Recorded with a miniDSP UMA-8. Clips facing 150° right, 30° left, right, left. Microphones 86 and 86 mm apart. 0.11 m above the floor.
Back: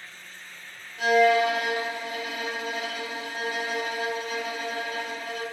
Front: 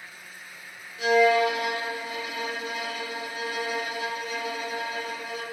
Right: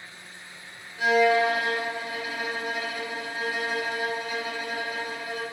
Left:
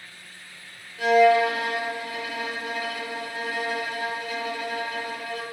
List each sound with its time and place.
1.0 s a violin: 150° right, 1.0 m